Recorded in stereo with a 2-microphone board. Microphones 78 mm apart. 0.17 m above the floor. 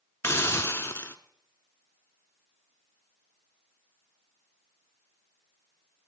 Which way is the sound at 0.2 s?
35° left (ahead or behind).